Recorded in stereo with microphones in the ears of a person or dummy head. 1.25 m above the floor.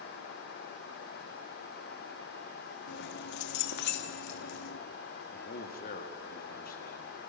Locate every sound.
2.9 s keys jangling: 60° left (ahead or behind), 1.4 m
5.3 s a man speaking: 45° left (ahead or behind), 2.5 m